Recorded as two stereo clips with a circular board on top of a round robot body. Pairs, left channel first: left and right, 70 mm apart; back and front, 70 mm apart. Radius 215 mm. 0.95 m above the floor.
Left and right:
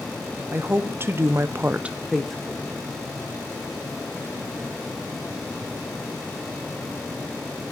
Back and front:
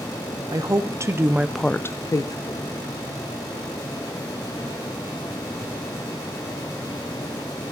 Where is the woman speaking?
30° right, 1.0 m; by 2.7 s 170° left, 1.0 m.